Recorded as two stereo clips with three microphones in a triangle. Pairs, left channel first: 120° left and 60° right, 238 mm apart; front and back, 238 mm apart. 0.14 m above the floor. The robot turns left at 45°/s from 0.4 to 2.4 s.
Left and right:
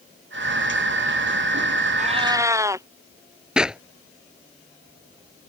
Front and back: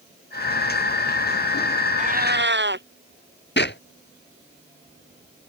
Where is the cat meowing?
120° right; by 2.9 s 140° right.